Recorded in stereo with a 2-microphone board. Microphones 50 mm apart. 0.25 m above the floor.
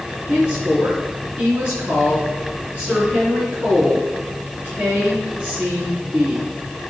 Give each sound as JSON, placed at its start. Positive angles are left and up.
{"t": 0.3, "sound": "a woman speaking", "side_deg": -25, "distance_m": 3.5}